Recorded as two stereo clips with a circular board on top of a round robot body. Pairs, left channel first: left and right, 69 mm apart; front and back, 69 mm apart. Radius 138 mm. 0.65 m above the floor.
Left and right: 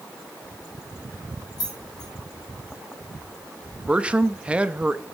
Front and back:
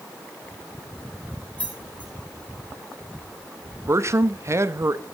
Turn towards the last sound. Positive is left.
turn(degrees=-155)